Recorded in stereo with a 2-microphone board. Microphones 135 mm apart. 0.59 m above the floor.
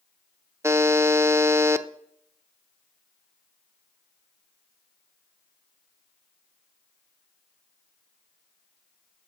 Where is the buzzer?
20° right (ahead or behind), 0.5 m.